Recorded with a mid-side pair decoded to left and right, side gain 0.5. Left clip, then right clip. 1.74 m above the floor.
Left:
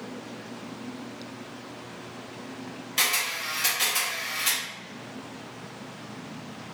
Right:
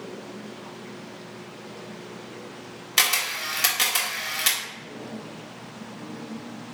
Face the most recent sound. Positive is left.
turn(degrees=-55)